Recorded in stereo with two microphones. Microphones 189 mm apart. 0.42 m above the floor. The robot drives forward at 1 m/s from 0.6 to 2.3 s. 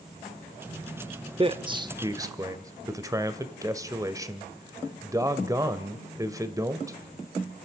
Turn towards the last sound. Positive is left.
turn(degrees=-15)  # may be behind; listen again after turning